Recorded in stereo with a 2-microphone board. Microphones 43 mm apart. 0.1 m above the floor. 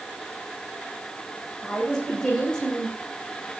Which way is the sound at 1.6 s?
20° left (ahead or behind).